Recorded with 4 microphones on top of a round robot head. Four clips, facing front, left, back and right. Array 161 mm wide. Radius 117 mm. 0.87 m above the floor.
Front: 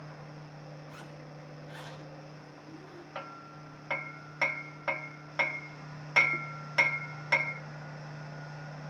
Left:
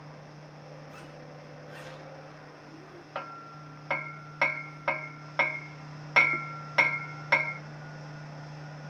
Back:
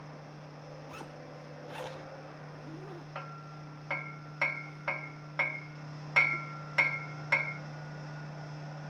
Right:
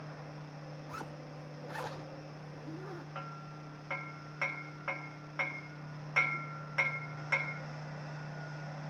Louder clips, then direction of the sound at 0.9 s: Right 1 dB, back 2 dB; 125° right.